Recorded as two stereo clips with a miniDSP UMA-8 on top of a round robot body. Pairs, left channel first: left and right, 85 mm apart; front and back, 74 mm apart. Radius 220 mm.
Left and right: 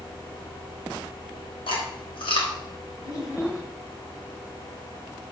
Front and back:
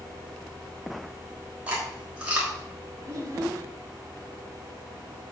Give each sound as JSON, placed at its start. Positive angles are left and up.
{"t": 1.7, "sound": "chewing", "azimuth_deg": 100, "distance_m": 4.0}
{"t": 3.0, "sound": "a child speaking", "azimuth_deg": 135, "distance_m": 2.0}